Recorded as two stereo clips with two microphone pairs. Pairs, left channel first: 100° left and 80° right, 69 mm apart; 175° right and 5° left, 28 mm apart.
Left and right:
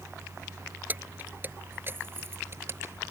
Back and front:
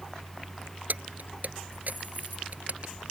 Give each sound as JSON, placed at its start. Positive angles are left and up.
{"t": 0.9, "sound": "keys jangling", "azimuth_deg": -15}